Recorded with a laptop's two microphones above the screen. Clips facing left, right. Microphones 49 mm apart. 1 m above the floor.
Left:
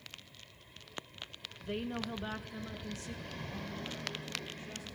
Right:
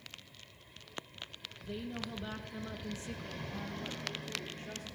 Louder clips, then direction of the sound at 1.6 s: Left 3 dB; 60° left (ahead or behind).